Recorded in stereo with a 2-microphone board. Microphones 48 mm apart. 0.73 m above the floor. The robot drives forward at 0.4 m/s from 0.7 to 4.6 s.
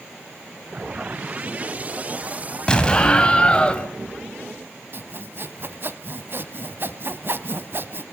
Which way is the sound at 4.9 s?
50° right (ahead or behind).